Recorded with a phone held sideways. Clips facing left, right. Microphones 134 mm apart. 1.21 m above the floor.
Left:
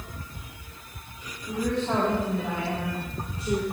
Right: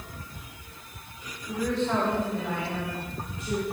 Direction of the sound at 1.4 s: 15° left (ahead or behind).